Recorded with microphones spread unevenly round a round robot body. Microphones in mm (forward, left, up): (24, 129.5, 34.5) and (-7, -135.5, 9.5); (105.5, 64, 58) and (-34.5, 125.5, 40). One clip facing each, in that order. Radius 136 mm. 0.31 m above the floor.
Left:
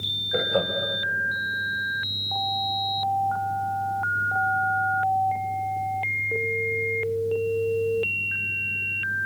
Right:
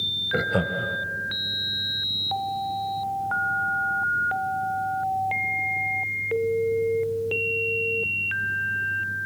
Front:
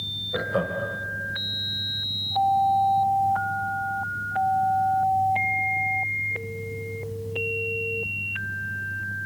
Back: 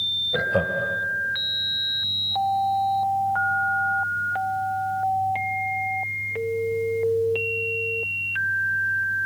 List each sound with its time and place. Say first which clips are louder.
0.3 s laughter: left 1 dB, back 2 dB; 135° right, 1.7 m